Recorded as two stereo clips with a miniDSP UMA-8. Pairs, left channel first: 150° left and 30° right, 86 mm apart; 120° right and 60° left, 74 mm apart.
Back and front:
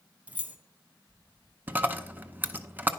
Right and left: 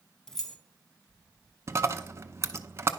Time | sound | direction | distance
0.3 | keys jangling | 55° right | 0.7 m
1.7 | a dropped coin | 30° left | 0.5 m